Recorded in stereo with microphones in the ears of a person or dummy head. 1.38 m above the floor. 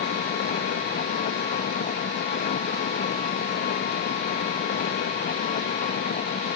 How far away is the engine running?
About 0.8 m.